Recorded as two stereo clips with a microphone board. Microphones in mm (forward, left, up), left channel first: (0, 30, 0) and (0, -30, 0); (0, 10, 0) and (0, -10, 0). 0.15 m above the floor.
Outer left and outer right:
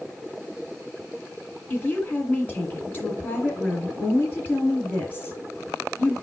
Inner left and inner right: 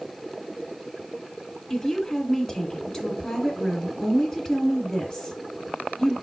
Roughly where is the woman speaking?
Left.